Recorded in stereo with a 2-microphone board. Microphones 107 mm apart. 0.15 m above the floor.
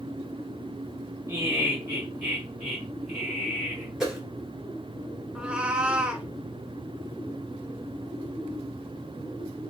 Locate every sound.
1.3 s laughter: 25° right (ahead or behind), 1.7 m; by 3.9 s 5° left (ahead or behind), 2 m
4.0 s a whoosh: 5° right (ahead or behind), 1.7 m
5.3 s a cat meowing: 10° right (ahead or behind), 0.5 m